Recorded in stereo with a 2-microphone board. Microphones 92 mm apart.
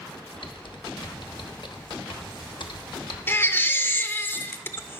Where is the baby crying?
25° left (ahead or behind), 0.7 m.